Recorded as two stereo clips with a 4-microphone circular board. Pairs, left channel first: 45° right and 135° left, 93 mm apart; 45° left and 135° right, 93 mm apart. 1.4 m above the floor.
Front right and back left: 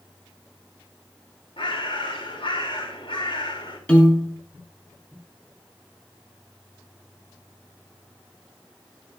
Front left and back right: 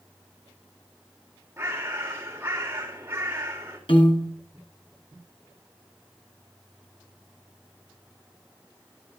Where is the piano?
30° left, 3 m.